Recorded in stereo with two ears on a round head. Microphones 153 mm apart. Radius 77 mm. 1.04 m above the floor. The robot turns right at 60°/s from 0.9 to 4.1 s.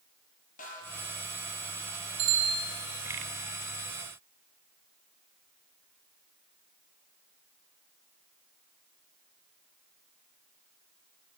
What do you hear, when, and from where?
0.6 s a snare drum: 50° left (ahead or behind), 5.5 m; by 1.0 s 45° left (ahead or behind), 5.5 m
2.2 s a bicycle bell: 80° right, 8 m; by 2.6 s 75° right (ahead or behind), 8 m